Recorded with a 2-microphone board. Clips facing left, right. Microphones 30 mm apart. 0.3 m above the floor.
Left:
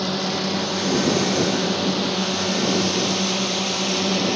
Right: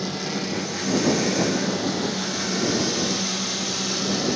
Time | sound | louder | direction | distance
0.0 | a drone | left 4 dB | 45° left (ahead or behind) | ?